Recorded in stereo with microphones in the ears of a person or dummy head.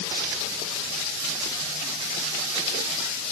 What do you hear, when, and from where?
Only background noise.